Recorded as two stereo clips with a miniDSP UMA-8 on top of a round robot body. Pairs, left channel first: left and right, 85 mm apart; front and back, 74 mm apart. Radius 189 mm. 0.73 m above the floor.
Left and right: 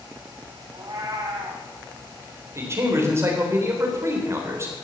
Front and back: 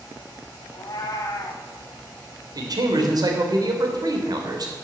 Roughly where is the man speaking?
Behind right.